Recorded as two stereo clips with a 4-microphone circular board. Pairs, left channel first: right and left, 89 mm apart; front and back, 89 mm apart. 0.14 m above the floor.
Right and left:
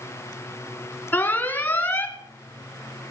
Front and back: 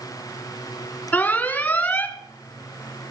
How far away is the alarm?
About 1.6 m.